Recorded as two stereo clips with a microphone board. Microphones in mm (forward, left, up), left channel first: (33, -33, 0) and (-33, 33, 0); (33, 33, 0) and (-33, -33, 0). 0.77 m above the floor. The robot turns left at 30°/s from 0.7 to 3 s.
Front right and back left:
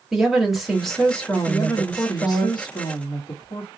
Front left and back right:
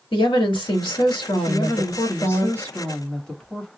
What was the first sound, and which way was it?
A woman speaking, 45° left.